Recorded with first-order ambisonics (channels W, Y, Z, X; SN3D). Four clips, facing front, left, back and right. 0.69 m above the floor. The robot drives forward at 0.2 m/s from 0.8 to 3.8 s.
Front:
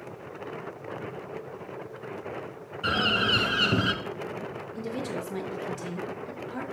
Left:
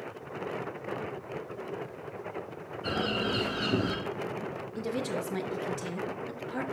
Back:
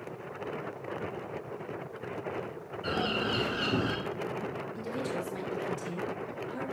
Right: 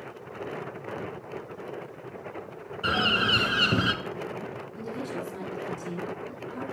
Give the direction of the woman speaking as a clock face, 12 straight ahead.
10 o'clock.